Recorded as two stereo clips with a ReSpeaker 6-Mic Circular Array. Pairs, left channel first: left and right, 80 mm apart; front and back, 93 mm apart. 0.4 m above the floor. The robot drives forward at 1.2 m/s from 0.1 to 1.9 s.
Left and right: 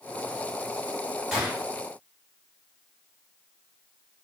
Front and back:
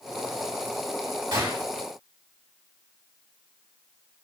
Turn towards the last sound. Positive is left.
turn(degrees=-175)